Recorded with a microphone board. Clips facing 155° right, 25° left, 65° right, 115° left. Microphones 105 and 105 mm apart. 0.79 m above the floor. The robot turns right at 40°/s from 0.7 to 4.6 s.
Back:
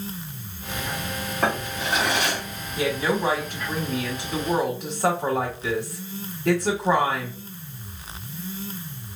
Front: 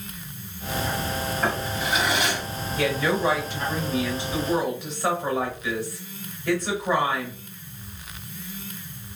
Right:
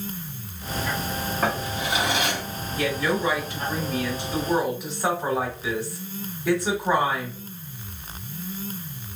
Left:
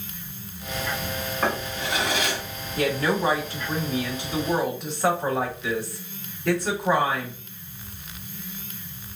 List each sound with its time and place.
1.4 s a drawer: 155° right, 2.5 m; by 2.4 s 115° right, 2.5 m
2.8 s a woman speaking: 130° left, 1.8 m; by 7.4 s 155° right, 1.8 m